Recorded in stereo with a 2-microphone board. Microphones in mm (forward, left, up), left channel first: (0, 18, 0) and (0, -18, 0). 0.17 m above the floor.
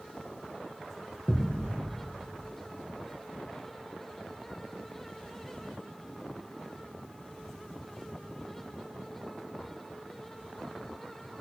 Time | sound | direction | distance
1.3 | a thud | 35° left (ahead or behind) | 2.5 m